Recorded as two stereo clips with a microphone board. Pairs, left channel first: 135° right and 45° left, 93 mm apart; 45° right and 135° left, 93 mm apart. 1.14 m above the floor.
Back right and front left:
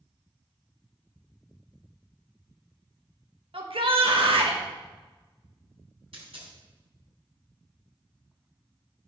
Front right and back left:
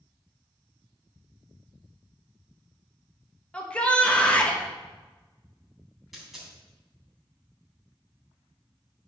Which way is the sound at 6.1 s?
50° left.